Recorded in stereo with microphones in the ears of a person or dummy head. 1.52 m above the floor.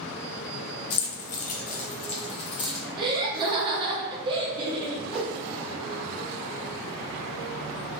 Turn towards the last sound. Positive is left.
turn(degrees=5)  # may be behind; listen again after turning